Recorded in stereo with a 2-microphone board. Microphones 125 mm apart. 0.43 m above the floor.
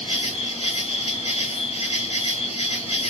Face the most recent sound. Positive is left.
turn(degrees=55)  # may be behind; listen again after turning